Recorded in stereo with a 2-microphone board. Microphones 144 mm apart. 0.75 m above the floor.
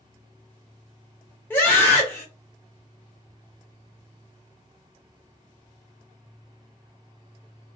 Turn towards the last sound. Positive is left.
turn(degrees=15)  # may be behind; listen again after turning